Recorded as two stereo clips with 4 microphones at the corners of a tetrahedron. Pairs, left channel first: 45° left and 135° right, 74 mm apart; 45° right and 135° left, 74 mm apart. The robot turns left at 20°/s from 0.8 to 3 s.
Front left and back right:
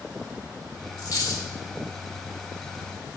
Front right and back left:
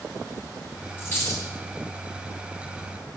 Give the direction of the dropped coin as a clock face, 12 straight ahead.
12 o'clock.